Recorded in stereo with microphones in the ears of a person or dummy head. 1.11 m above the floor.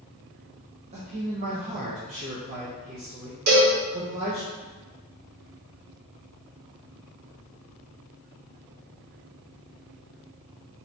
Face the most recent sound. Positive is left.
turn(degrees=-50)  # may be behind; listen again after turning